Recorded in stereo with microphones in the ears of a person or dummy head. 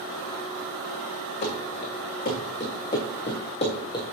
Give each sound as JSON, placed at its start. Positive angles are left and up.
{"t": 1.4, "sound": "running footsteps", "side_deg": 40, "distance_m": 4.0}